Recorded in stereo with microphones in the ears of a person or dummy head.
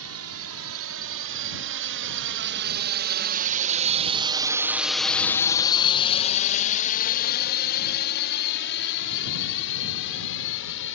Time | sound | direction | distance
0.0 | a drone | 75° right (ahead or behind) | ?